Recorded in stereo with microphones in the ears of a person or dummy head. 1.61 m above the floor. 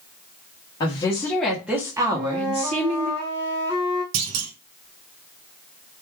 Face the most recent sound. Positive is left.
turn(degrees=-80)